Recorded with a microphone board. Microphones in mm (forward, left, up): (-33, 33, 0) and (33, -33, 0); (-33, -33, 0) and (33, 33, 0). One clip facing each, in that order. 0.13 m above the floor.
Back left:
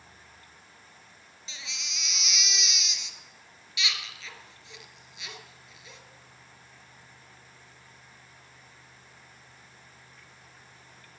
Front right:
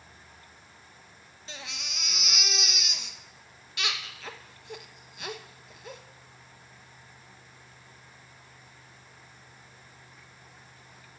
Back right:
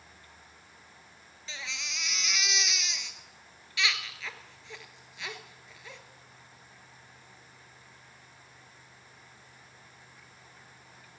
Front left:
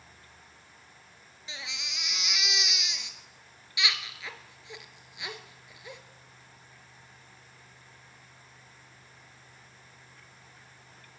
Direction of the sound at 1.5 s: 25° right.